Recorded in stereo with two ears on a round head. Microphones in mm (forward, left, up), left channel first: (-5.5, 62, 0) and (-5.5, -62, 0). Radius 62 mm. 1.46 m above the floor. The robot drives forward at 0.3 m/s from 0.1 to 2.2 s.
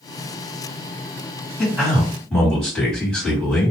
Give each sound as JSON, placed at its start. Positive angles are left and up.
{"t": 1.6, "sound": "a man speaking", "side_deg": 5, "distance_m": 2.0}